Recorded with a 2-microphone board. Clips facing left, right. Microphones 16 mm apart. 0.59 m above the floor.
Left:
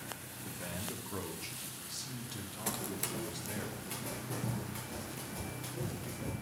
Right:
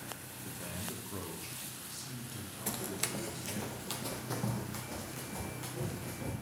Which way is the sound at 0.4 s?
5° left (ahead or behind).